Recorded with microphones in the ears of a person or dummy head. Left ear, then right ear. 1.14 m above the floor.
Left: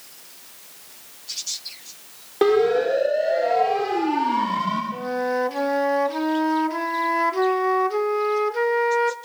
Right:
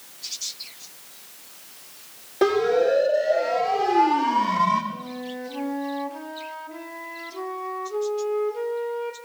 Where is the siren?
15° left (ahead or behind), 5 m; by 4.8 s 5° right (ahead or behind), 3 m.